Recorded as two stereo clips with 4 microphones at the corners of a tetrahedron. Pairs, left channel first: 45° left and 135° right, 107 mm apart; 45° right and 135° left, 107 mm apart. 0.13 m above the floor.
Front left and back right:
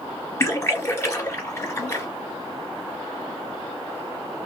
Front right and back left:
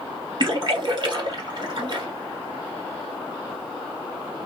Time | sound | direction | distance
0.4 | a splash | 105° left | 2.5 m